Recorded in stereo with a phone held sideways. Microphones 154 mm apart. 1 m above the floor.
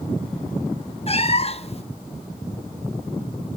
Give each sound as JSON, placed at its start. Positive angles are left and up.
{"t": 1.1, "sound": "a cat meowing", "side_deg": 40, "distance_m": 0.7}